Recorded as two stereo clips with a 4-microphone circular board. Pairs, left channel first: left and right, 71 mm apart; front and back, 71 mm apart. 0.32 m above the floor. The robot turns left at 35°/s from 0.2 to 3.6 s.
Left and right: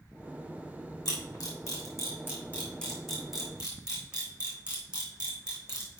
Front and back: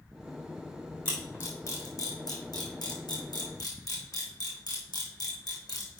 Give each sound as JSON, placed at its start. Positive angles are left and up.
{"t": 1.1, "sound": "a camera shutter", "azimuth_deg": 75, "distance_m": 3.5}